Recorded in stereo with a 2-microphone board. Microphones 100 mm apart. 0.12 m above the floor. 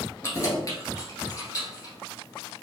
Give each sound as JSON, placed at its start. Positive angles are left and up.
{"t": 0.2, "sound": "keys jangling", "side_deg": 30, "distance_m": 1.4}